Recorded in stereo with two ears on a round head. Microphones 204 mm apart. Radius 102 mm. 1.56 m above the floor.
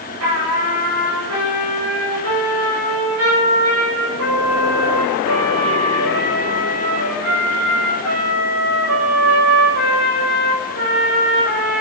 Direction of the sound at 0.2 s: 75° right (ahead or behind).